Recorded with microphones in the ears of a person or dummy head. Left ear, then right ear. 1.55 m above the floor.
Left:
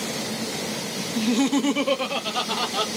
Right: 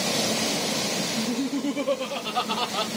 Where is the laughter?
80° left, 0.6 m; by 2.9 s 10° right (ahead or behind), 0.9 m.